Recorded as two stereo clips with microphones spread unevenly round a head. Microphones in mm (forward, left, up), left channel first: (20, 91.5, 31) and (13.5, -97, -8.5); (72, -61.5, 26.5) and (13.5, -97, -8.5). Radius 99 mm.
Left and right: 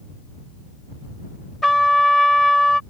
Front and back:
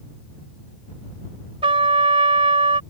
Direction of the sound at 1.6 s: 170° left.